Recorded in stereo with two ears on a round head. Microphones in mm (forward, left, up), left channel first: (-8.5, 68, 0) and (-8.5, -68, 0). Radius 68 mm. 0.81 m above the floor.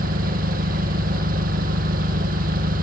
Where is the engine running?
60° right (ahead or behind).